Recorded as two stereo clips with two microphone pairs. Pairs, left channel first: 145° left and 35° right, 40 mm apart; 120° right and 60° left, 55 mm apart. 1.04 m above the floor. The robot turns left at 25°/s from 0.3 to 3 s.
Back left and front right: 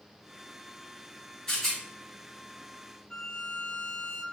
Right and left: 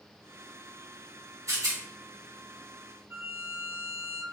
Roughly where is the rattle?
Left.